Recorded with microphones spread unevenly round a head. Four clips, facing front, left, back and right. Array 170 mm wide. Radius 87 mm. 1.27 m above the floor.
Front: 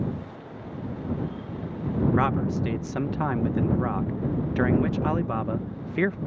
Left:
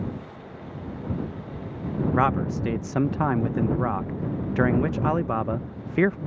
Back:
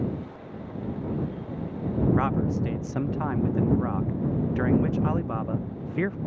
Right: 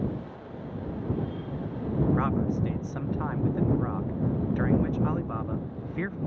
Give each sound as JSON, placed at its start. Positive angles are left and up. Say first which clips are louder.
{"t": 2.1, "sound": "a man speaking", "louder": "left 4 dB, front 1 dB", "azimuth_deg": 75}